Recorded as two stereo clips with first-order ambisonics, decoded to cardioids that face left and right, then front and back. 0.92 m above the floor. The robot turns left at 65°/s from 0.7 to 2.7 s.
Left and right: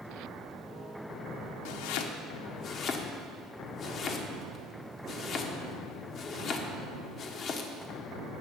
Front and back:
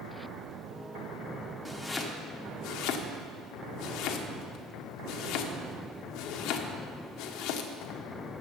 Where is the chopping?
100° left, 1.1 m; by 8.0 s 35° left, 1.1 m.